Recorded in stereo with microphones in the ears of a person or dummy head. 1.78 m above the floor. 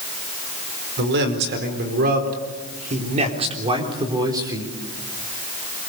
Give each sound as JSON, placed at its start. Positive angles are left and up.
{"t": 1.0, "sound": "a man speaking", "side_deg": -65, "distance_m": 4.5}